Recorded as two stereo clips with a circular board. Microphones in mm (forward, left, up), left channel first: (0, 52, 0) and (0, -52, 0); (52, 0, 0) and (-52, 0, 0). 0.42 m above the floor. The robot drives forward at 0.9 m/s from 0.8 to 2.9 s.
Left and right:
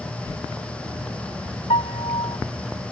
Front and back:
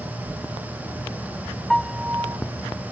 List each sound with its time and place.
1.7 s a piano: 85° left; by 2.4 s 120° left